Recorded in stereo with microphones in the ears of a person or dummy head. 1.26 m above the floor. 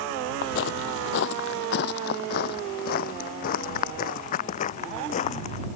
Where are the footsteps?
50° left (ahead or behind); by 5.7 s 35° left (ahead or behind).